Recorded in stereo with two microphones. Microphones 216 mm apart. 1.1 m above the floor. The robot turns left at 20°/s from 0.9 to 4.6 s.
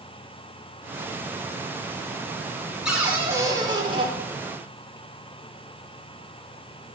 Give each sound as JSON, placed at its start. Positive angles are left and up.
{"t": 2.9, "sound": "a cupboard door", "side_deg": -5, "distance_m": 1.4}